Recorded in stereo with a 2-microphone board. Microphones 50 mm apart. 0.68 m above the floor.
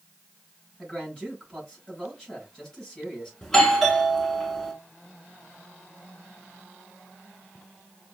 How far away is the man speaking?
About 3.5 m.